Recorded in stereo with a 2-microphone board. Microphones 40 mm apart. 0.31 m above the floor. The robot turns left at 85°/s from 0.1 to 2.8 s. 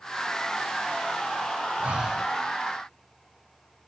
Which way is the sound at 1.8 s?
140° right.